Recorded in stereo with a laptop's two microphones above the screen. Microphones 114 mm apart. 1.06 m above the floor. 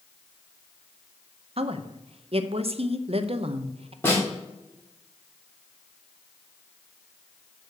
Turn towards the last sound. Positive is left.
turn(degrees=20)  # may be behind; listen again after turning